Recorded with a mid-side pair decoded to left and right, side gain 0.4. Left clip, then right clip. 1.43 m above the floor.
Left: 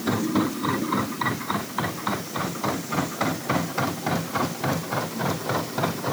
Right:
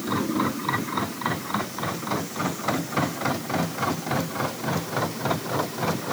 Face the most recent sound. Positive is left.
No sound to turn to.